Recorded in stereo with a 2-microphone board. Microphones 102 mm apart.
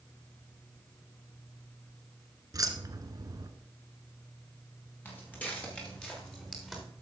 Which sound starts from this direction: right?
Keys jangling, at 2.5 s.